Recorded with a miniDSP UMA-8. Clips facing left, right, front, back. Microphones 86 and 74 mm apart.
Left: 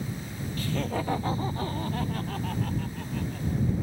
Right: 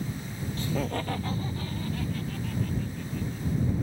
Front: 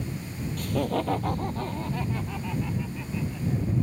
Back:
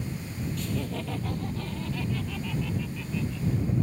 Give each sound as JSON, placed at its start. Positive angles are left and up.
{"t": 0.6, "sound": "laughter", "azimuth_deg": -35}